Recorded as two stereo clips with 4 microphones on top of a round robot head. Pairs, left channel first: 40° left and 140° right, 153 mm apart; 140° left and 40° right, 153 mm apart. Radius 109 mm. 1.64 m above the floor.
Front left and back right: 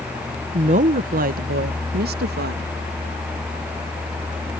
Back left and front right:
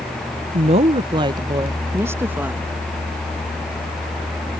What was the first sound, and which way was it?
A woman speaking, 90° right.